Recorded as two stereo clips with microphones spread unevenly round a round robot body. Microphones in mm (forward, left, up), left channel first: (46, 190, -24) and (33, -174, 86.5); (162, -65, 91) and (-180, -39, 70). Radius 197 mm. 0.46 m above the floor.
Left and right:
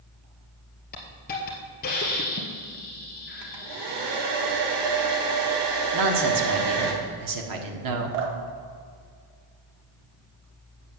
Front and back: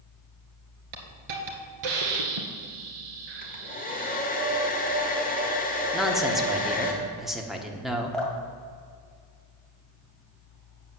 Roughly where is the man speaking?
Right.